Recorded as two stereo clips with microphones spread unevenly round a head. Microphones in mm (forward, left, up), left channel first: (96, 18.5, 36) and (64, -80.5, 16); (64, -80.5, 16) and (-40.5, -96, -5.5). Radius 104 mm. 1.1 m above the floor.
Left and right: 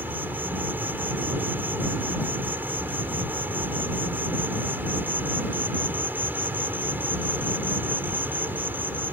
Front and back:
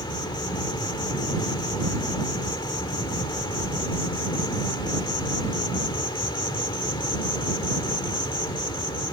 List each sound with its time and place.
0.0 s an insect: 35° right